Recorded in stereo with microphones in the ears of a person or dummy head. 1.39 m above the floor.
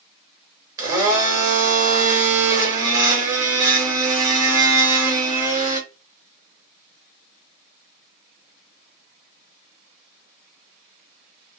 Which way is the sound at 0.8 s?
25° right (ahead or behind).